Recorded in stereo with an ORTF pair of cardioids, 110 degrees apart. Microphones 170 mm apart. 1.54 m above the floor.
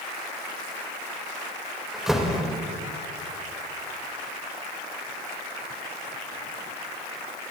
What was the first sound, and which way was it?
A door slam, 5° right.